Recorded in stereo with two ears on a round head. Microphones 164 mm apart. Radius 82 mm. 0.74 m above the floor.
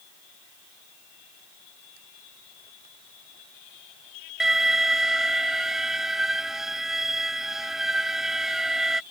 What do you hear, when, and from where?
4.4 s an alarm: centre (ahead or behind)